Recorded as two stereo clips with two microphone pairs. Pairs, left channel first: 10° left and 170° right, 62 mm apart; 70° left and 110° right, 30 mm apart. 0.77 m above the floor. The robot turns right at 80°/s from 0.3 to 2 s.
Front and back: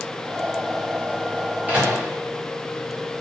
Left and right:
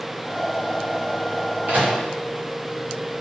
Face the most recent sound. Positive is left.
turn(degrees=-90)